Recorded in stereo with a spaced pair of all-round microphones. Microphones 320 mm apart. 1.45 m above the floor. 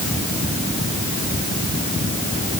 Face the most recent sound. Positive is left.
No sound to turn to.